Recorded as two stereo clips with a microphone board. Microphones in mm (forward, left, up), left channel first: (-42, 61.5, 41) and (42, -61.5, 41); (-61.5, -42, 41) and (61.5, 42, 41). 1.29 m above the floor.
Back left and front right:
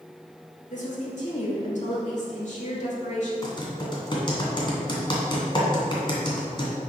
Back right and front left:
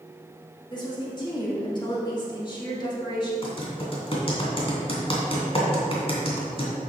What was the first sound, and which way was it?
A woman speaking, 155° left.